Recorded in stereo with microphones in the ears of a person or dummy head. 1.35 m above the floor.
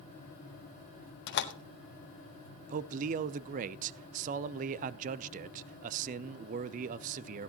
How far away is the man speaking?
About 0.6 m.